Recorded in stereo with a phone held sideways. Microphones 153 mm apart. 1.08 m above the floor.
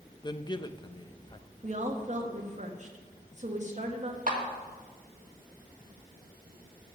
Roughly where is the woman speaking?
Right.